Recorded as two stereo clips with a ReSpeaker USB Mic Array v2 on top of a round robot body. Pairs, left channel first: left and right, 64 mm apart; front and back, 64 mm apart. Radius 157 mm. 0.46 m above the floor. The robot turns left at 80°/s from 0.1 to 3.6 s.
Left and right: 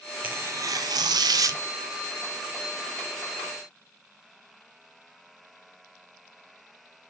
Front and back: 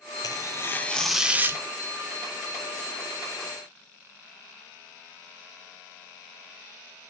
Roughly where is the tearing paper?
Ahead right.